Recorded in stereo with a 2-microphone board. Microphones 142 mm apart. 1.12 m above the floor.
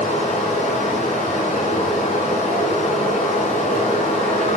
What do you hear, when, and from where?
0.0 s running water: 55° left (ahead or behind), 4.5 m